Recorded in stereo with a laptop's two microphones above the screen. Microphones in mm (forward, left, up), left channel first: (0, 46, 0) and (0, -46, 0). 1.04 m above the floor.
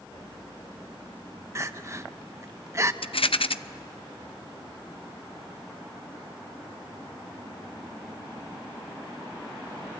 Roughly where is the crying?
Right.